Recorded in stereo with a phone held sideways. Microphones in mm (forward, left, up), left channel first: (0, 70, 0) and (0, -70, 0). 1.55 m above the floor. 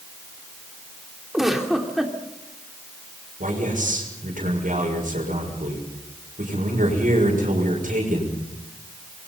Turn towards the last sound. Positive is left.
turn(degrees=-70)  # may be behind; listen again after turning